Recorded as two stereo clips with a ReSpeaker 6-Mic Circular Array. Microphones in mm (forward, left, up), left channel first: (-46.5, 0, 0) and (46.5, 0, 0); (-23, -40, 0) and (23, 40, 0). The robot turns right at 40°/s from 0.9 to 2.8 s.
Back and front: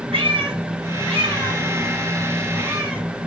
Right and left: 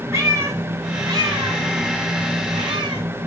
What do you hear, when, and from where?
0.1 s a cat meowing: straight ahead, 1.4 m; by 3.0 s 80° left, 1.4 m